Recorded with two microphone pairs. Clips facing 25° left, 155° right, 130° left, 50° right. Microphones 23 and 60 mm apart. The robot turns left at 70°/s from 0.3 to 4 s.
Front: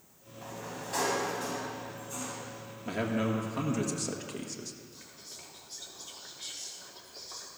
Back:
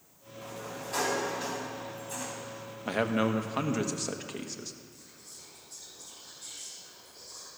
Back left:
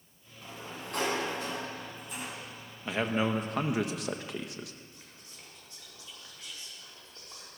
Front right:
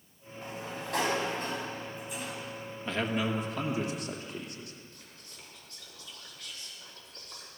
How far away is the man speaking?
About 1.4 m.